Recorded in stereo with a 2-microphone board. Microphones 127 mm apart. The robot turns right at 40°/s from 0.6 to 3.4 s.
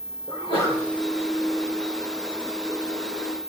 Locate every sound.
0.3 s a sneeze: 35° left (ahead or behind), 4.5 m; by 0.8 s 45° left (ahead or behind), 4.5 m